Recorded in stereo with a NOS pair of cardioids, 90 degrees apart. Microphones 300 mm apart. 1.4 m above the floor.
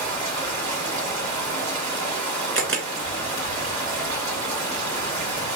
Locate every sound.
0.0 s running water: 60° right, 3 m
2.5 s a camera shutter: 40° right, 2.0 m